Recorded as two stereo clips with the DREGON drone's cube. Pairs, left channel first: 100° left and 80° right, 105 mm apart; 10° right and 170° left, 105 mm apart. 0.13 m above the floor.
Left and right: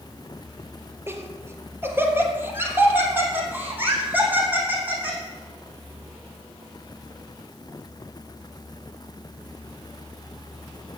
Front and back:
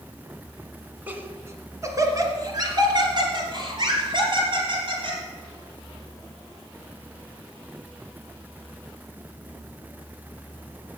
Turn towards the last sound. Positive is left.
turn(degrees=-155)